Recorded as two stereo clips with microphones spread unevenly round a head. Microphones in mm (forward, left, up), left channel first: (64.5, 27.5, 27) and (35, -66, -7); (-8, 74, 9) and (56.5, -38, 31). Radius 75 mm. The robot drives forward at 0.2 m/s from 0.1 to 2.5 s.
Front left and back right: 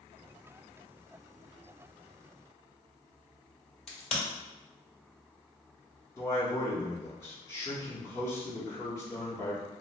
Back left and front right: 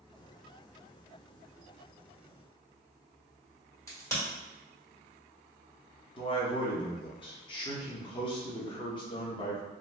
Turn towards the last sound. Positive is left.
turn(degrees=155)